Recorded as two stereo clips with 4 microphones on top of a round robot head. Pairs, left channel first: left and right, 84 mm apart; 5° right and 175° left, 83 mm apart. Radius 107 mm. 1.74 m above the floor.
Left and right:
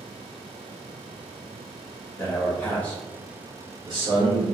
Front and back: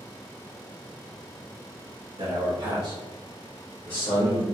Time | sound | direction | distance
2.2 | a man speaking | 155° left | 1.4 m